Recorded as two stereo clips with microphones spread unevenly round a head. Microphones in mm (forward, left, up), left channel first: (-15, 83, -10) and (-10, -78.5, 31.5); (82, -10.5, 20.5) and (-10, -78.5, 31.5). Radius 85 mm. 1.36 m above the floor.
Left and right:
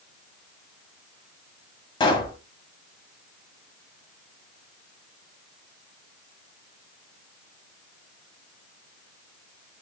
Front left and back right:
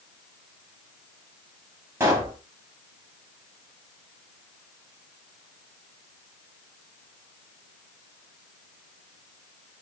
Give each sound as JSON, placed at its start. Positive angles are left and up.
{"t": 2.0, "sound": "a pop", "azimuth_deg": 160, "distance_m": 1.4}